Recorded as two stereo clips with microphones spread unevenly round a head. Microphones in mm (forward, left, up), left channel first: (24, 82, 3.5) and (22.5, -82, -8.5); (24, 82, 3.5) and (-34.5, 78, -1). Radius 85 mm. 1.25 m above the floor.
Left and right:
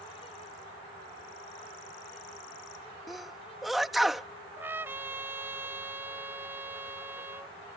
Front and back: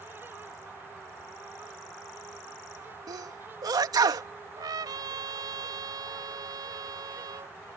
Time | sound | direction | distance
3.1 | a sneeze | straight behind | ?
4.6 | a trumpet | 170° right | ?